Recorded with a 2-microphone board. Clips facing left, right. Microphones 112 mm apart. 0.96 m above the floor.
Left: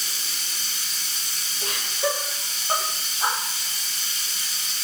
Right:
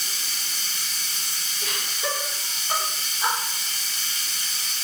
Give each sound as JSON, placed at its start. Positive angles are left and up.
{"t": 0.0, "sound": "running water", "side_deg": 5, "distance_m": 1.8}
{"t": 1.6, "sound": "laughter", "side_deg": 30, "distance_m": 1.2}